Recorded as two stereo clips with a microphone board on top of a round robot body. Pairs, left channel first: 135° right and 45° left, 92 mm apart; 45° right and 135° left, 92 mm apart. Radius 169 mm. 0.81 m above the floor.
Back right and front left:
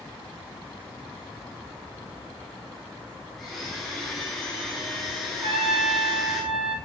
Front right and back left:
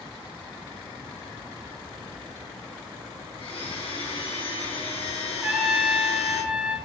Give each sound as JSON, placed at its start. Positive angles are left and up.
{"t": 3.4, "sound": "a blender", "azimuth_deg": -45, "distance_m": 4.0}
{"t": 5.4, "sound": "a trumpet", "azimuth_deg": 55, "distance_m": 2.5}